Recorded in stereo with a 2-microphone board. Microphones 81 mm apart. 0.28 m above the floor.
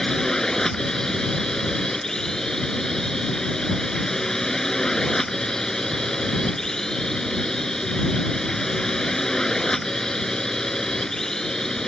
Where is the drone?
5° left (ahead or behind).